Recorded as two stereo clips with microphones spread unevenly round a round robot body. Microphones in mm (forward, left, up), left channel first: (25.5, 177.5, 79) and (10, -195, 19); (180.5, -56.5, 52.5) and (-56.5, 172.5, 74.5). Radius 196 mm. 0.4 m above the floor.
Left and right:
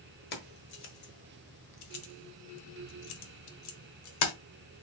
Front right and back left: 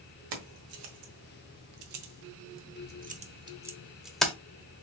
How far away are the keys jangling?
About 1.4 m.